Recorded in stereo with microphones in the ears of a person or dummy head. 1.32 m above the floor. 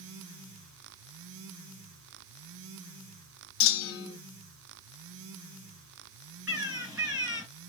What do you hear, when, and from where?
3.6 s a clunk: 65° left (ahead or behind), 1.1 m
6.5 s a bird: 15° right (ahead or behind), 3.5 m